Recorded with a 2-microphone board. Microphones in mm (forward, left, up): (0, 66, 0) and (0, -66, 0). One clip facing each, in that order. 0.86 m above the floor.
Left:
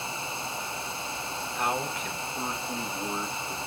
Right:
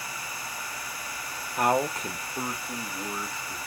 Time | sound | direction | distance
1.6 | a man speaking | 60° right (ahead or behind) | 0.8 m